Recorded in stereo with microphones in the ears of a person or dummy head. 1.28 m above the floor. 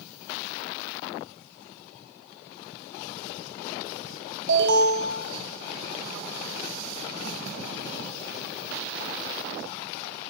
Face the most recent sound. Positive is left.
turn(degrees=-75)  # may be behind; listen again after turning